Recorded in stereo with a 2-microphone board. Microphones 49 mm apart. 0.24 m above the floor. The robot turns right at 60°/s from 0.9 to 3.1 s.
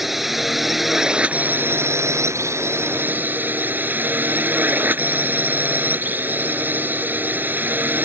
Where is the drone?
175° right; by 8.1 s 45° right.